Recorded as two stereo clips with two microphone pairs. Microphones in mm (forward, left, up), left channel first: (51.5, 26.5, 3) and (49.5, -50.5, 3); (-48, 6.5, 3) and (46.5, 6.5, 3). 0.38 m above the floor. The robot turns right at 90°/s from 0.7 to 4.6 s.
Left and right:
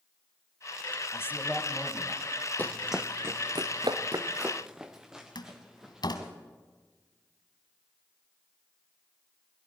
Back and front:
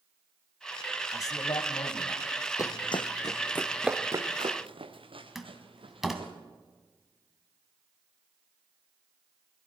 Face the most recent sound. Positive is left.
turn(degrees=90)